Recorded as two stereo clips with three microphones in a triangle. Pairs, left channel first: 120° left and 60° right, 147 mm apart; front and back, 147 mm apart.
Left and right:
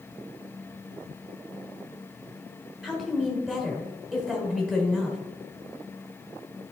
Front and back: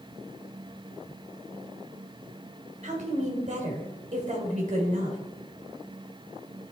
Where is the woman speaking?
140° right, 2 m.